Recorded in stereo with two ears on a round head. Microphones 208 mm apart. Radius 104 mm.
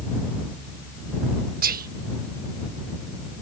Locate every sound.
1.6 s whispering: 40° right (ahead or behind)